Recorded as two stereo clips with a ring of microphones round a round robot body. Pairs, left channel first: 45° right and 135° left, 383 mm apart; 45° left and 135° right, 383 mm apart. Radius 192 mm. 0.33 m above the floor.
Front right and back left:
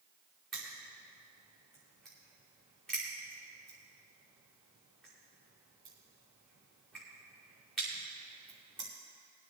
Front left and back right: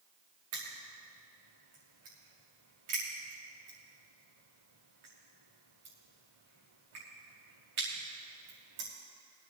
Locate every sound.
0.5 s crushing: 135° right, 6 m